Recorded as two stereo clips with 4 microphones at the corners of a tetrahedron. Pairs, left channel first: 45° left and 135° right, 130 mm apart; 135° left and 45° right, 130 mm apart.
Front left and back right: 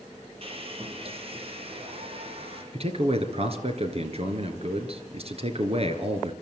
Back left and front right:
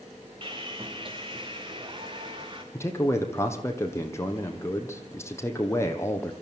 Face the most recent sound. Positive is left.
turn(degrees=-160)